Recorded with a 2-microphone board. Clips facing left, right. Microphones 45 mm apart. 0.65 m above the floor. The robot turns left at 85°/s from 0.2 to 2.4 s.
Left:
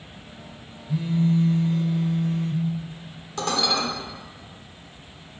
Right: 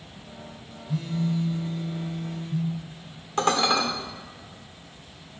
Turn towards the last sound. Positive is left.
turn(degrees=-40)  # may be behind; listen again after turning